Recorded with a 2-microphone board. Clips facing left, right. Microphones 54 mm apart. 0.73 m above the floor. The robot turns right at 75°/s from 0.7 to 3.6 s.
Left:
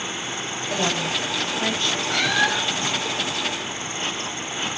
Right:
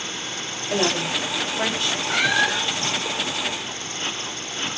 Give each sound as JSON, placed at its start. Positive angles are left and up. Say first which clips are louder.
{"t": 0.7, "sound": "a woman speaking", "louder": "right 2 dB", "side_deg": -10, "distance_m": 5.0}
{"t": 2.1, "sound": "a cat meowing", "louder": "right 1 dB", "azimuth_deg": -35, "distance_m": 0.9}